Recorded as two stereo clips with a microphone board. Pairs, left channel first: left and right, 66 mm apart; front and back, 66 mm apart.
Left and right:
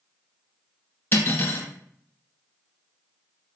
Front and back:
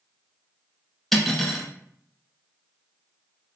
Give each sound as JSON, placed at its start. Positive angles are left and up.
{"t": 1.1, "sound": "cutlery clinking", "azimuth_deg": 85, "distance_m": 1.0}